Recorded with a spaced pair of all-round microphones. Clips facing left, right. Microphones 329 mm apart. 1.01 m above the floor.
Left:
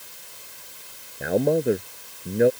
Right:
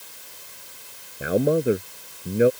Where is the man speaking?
5° right (ahead or behind).